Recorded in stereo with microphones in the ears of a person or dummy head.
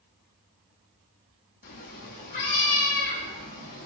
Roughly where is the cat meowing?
Left.